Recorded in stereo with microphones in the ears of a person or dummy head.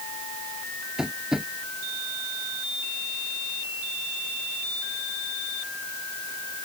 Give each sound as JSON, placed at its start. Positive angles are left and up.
{"t": 1.0, "sound": "tapping", "side_deg": -5}